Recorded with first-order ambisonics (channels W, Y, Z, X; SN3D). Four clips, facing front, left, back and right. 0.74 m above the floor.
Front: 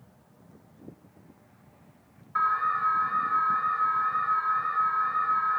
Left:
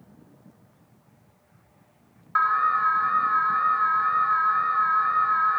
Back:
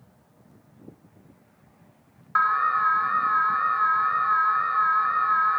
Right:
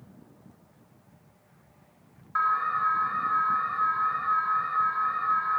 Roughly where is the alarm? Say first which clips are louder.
Left 4 dB, back 4 dB; behind left.